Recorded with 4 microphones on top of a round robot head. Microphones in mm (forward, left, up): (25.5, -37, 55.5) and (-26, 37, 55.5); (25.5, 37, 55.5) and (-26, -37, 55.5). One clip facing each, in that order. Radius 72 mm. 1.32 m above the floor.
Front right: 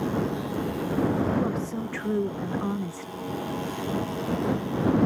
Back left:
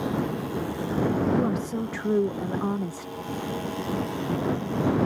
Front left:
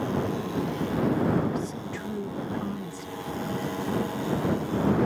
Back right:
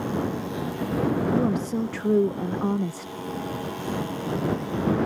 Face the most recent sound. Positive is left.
turn(degrees=-160)